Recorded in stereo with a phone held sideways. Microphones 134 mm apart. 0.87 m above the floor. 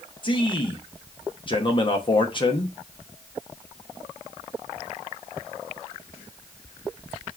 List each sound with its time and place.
0.2 s a man speaking: 35° left (ahead or behind), 0.8 m